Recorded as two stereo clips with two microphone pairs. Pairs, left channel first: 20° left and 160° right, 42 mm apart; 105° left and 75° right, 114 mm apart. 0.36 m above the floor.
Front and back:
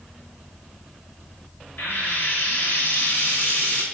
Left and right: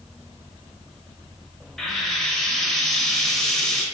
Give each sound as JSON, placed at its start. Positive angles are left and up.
{"t": 1.8, "sound": "frying", "azimuth_deg": 20, "distance_m": 0.6}